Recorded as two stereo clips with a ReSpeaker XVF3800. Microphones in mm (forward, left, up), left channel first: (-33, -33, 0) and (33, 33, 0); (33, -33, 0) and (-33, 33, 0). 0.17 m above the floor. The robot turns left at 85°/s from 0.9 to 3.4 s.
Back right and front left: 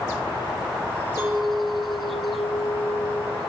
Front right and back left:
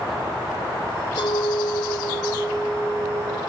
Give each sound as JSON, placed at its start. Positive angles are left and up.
{"t": 1.2, "sound": "a clink", "azimuth_deg": -15, "distance_m": 3.0}